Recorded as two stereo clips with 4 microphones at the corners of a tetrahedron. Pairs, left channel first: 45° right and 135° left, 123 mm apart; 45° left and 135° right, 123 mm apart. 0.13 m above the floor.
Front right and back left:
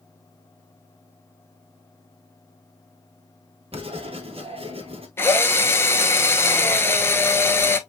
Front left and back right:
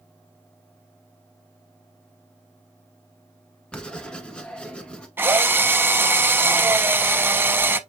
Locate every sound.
3.7 s writing: 125° left, 1.1 m
5.2 s a drill: 80° right, 0.5 m